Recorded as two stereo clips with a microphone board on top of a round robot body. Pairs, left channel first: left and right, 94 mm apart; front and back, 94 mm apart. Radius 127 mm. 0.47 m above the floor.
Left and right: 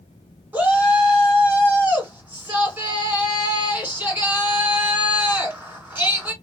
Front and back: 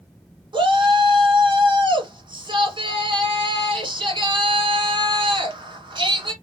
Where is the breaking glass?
No breaking glass in this recording.